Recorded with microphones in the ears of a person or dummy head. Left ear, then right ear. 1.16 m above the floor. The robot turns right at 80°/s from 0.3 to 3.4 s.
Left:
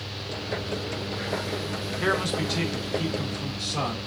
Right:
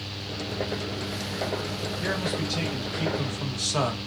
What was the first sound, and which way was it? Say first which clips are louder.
A man speaking: left 5 dB; 120° left.